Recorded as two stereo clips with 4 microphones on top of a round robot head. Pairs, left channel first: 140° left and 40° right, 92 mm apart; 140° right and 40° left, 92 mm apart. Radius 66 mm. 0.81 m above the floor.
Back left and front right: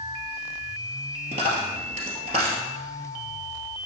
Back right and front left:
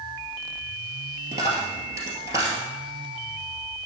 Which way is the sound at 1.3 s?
20° right.